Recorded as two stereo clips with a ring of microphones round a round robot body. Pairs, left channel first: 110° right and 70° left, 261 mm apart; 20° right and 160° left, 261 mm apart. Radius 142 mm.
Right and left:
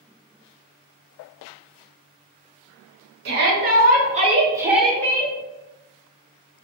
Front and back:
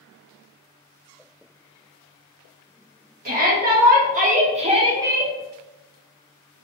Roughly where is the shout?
Left.